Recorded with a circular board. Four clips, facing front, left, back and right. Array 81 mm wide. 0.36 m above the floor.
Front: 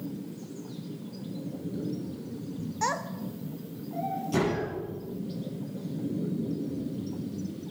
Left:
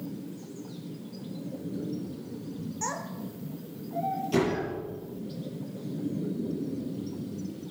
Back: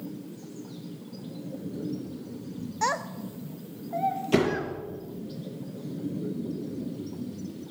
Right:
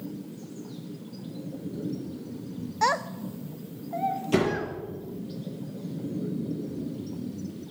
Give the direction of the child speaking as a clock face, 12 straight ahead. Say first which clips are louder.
Right 12 dB, back 2 dB; 3 o'clock.